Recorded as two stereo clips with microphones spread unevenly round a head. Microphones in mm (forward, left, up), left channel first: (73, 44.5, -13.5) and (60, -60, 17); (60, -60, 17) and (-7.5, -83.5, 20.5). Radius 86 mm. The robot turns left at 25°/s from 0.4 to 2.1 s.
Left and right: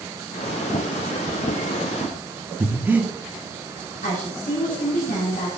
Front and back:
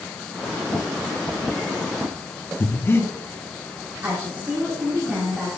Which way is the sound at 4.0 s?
125° left.